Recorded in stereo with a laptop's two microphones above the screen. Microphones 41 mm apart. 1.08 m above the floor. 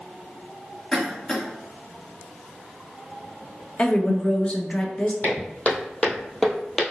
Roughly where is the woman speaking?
Left.